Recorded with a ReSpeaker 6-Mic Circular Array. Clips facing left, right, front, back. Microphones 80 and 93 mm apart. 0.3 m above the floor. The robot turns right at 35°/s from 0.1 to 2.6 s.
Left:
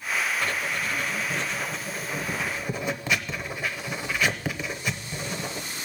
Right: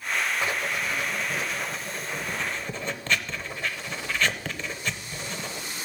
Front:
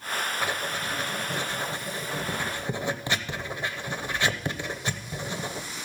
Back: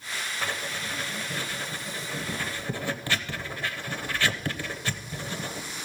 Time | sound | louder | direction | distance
0.4 | writing | even, front 3 dB | 50° right | 0.8 m